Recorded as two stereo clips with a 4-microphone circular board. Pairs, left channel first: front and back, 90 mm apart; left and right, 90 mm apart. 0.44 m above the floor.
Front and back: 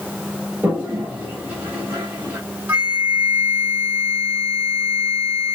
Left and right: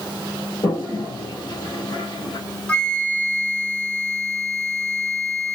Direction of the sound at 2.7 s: 145° left.